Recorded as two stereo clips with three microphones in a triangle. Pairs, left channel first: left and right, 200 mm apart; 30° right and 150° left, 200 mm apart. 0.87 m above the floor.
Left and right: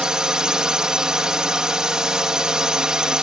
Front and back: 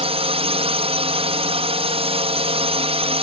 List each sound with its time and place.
0.0 s a drone: 175° right